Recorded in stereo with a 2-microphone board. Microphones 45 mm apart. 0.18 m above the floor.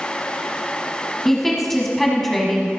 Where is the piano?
I don't hear a piano.